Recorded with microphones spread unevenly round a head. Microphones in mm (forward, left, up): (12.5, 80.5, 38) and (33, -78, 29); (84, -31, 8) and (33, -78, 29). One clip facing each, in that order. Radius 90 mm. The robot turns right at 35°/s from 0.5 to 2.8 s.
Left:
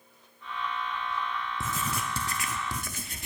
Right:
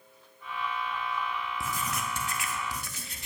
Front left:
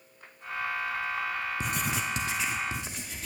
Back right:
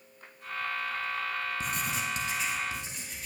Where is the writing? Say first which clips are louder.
Left 1 dB, front left 2 dB; 35° left, 0.6 m; by 3.3 s 80° left, 0.6 m.